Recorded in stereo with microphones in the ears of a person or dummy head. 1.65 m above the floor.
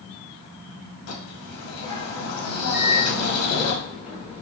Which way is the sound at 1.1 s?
85° left.